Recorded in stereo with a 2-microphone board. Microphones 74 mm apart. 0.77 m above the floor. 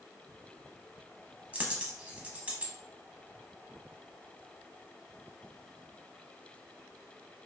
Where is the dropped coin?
20° right (ahead or behind), 0.6 m.